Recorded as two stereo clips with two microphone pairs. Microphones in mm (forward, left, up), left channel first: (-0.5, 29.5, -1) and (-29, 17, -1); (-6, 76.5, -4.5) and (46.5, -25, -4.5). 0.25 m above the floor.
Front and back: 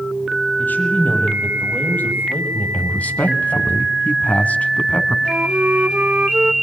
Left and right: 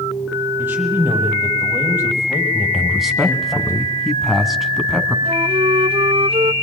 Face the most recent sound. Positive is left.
turn(degrees=-100)